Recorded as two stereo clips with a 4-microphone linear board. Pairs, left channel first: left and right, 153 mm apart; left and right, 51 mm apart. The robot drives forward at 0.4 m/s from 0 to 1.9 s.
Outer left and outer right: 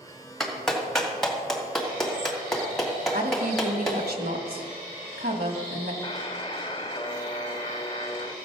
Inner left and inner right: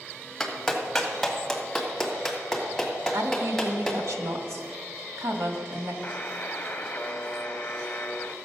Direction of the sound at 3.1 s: 85° right.